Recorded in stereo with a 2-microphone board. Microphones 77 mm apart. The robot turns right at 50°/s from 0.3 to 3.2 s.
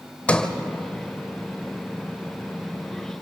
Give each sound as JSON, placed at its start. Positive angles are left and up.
{"t": 0.3, "sound": "a sliding door", "side_deg": 15, "distance_m": 1.3}